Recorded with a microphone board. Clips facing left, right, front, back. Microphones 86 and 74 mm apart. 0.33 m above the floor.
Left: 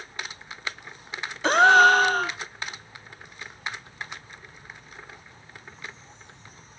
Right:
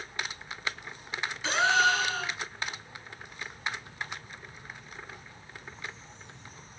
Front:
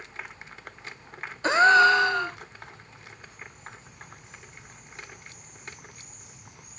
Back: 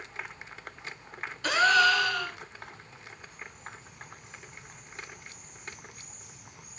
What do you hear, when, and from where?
1.4 s a gasp: 60° left, 0.5 m